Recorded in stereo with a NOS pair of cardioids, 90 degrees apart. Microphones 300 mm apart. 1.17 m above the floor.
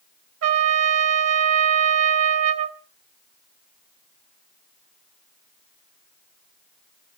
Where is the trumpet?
55° right, 1.3 m.